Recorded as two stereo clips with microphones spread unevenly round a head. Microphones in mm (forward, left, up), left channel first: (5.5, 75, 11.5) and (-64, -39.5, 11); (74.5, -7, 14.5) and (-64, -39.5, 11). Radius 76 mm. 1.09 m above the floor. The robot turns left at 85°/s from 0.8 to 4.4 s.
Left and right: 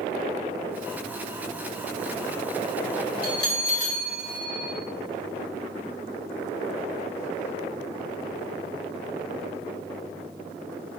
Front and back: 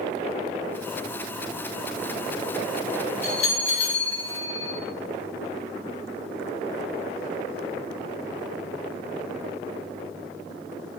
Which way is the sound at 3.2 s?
60° left.